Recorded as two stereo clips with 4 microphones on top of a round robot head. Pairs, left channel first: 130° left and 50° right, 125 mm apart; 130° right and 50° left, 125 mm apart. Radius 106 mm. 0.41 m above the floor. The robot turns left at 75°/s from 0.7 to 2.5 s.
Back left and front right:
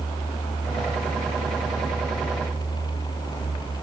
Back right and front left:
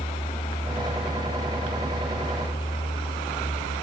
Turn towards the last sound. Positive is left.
No sound to turn to.